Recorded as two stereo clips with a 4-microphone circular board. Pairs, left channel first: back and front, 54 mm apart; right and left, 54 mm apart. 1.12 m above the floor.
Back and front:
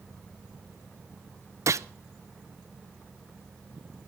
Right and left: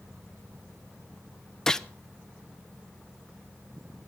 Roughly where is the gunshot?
Ahead.